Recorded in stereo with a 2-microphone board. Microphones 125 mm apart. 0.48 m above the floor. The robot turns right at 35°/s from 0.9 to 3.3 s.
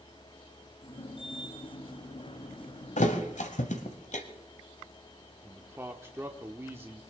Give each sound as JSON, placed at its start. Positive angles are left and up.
{"t": 3.0, "sound": "a thud", "side_deg": 75, "distance_m": 1.4}
{"t": 5.4, "sound": "a man speaking", "side_deg": -20, "distance_m": 1.1}